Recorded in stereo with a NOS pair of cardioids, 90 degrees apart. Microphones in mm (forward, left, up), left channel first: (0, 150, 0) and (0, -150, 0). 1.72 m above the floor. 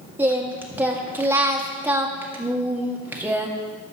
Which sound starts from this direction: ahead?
Singing, at 0.2 s.